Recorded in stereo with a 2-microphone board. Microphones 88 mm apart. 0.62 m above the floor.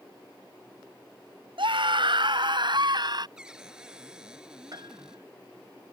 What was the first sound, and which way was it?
A scream, 75° right (ahead or behind).